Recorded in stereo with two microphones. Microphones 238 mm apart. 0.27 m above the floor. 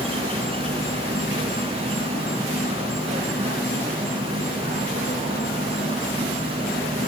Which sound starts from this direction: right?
An insect, at 0.0 s.